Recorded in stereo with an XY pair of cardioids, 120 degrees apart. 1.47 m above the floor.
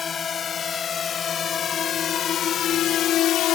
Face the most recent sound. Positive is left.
turn(degrees=70)